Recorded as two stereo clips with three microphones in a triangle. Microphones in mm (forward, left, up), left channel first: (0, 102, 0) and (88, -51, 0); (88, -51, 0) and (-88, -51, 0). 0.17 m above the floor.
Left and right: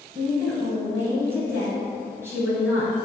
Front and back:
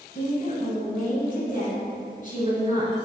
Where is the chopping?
I don't hear chopping.